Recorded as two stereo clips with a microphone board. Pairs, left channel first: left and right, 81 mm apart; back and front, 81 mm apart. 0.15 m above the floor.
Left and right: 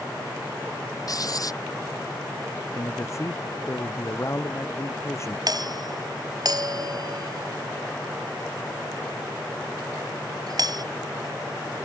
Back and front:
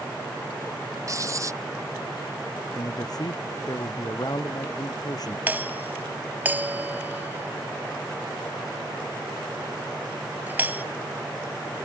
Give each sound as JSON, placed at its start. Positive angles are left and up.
{"t": 1.1, "sound": "writing", "azimuth_deg": 50}
{"t": 2.8, "sound": "a man speaking", "azimuth_deg": 145}
{"t": 5.5, "sound": "a doorbell", "azimuth_deg": -65}